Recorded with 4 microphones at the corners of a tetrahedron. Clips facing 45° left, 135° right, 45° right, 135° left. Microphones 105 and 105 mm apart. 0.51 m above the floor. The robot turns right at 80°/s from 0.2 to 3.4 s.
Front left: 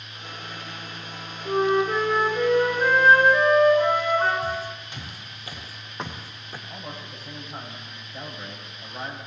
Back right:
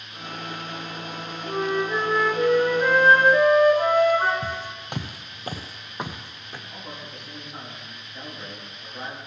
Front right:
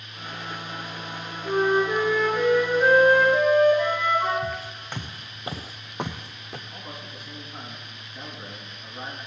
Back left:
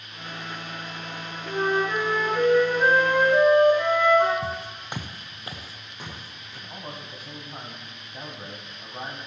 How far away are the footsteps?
About 1.8 m.